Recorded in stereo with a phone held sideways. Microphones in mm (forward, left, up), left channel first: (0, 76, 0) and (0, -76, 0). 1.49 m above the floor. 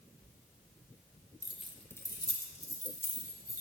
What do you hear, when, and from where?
1.4 s keys jangling: 10° right (ahead or behind), 1.1 m; by 3.6 s 70° left (ahead or behind), 1.9 m